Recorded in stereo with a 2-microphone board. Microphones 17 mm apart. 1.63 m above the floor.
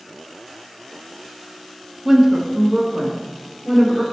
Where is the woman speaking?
15° right (ahead or behind), 0.6 m; by 4.0 s 70° right (ahead or behind), 1.7 m.